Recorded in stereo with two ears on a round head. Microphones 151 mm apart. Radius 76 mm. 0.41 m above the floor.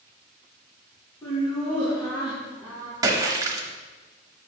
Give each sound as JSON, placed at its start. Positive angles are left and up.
{"t": 1.2, "sound": "laughter", "side_deg": 20, "distance_m": 2.5}
{"t": 3.0, "sound": "a splash", "side_deg": -20, "distance_m": 1.1}